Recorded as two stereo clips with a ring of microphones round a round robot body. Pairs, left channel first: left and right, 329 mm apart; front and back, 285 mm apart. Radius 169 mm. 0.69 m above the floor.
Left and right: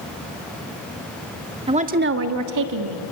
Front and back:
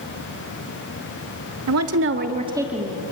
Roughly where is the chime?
I don't hear a chime.